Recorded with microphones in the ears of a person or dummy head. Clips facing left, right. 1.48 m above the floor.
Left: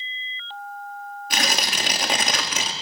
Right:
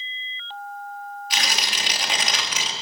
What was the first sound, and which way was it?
Tearing paper, 45° left (ahead or behind).